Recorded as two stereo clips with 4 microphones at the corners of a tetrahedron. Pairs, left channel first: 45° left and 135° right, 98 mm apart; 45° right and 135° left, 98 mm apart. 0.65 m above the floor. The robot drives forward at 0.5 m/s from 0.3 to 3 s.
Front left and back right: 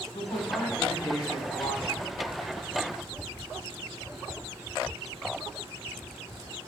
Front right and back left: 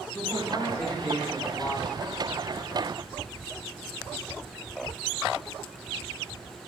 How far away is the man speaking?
About 5.5 m.